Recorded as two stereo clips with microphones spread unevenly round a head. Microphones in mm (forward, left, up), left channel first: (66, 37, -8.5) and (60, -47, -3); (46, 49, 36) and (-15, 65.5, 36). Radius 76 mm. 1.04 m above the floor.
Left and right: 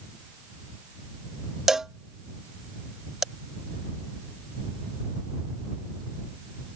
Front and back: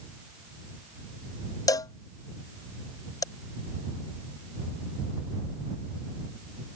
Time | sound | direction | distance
1.7 | a cowbell | 5° right | ?